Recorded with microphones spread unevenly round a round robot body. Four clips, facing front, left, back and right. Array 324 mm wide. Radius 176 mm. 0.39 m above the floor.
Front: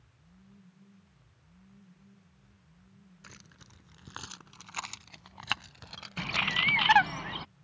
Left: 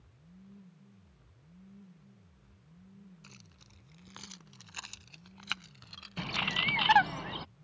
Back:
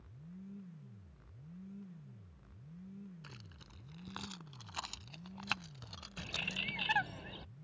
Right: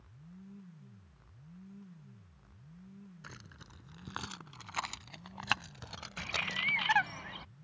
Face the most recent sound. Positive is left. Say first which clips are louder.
# left 4 dB, front 12 dB
turn(degrees=35)